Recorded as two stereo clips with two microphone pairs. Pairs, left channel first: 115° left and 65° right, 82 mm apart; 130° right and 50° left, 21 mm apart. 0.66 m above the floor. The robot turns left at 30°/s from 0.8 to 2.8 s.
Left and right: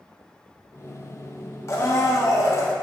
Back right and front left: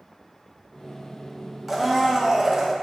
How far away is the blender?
About 0.5 m.